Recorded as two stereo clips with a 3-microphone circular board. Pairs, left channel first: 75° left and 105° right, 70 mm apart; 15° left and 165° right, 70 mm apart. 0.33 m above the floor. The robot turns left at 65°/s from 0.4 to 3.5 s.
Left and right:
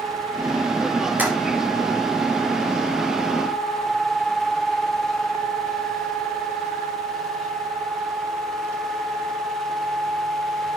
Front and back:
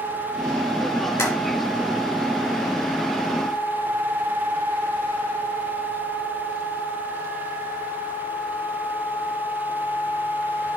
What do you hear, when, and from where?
1.2 s tapping: 35° right, 2.5 m; by 1.3 s 45° right, 2.5 m